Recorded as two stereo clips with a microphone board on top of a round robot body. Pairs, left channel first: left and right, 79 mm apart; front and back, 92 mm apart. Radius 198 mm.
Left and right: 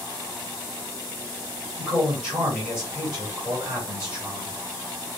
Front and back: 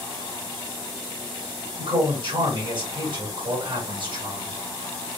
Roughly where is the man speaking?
Behind.